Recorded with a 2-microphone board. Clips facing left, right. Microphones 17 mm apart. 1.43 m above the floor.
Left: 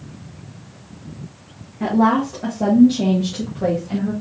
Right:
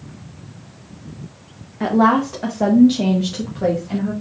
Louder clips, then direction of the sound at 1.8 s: Right 2 dB; 65° right (ahead or behind).